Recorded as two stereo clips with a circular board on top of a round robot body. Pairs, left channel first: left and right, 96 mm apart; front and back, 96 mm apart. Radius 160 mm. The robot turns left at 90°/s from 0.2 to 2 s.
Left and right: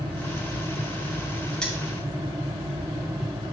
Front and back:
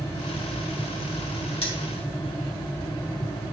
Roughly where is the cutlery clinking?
Ahead.